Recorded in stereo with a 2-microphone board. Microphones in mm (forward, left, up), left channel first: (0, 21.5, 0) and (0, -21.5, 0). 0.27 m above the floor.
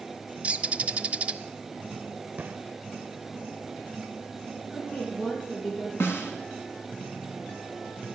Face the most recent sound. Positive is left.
turn(degrees=65)  # may be behind; listen again after turning